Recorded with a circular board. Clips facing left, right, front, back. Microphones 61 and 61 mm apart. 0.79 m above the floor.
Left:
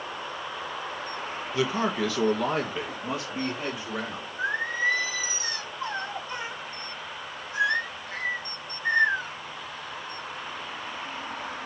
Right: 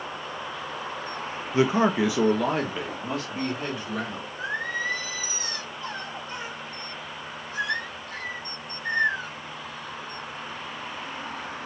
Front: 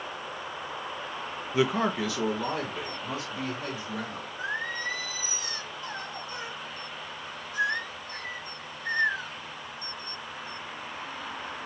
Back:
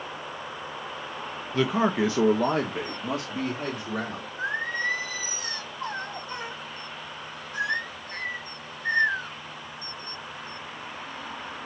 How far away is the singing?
About 2 m.